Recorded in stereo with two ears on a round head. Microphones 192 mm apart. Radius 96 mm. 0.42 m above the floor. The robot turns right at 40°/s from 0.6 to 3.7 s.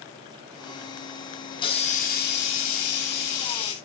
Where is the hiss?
20° left, 2.5 m; by 3.8 s 105° left, 2.5 m.